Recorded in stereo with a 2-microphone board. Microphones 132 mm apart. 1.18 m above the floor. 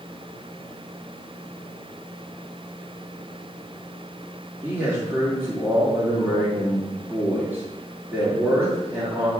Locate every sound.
4.6 s a man speaking: 20° right (ahead or behind), 1.9 m